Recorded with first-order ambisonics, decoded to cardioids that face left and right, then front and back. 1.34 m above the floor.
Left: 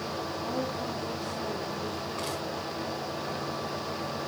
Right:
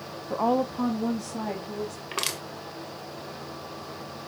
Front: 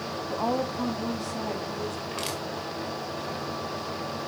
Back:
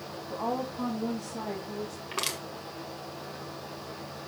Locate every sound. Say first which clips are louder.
0.3 s a woman speaking: right 12 dB, front 4 dB; 70° right, 0.6 m; by 2.0 s 95° right, 3 m
2.1 s crushing: right 3 dB, back 4 dB; 105° right, 1.9 m